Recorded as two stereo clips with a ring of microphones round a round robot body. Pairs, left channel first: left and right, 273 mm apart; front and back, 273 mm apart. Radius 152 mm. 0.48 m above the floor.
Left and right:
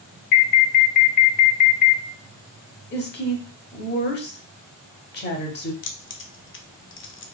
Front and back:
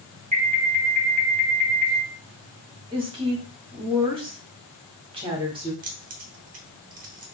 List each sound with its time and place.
0.3 s an alarm: 130° left, 0.9 m
2.9 s a woman speaking: 120° left, 1.1 m
5.8 s keys jangling: 125° left, 0.7 m